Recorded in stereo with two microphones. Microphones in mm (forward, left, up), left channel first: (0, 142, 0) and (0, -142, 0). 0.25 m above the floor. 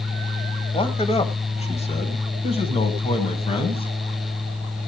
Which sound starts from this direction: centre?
A man speaking, at 0.7 s.